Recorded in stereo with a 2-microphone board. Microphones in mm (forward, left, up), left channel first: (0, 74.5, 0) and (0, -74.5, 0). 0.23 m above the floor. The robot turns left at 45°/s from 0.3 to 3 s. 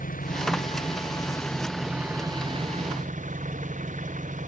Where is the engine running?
65° left; by 4.5 s 55° right.